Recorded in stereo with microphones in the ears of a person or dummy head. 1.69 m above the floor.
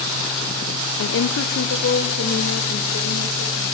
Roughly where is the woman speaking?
Left.